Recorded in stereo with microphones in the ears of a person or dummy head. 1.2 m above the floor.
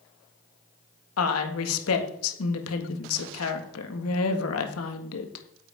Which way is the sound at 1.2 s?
80° left.